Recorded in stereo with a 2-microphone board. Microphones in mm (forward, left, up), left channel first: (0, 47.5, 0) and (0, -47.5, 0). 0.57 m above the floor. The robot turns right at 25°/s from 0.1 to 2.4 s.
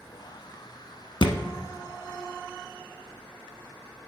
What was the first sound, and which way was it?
A thud, 60° left (ahead or behind).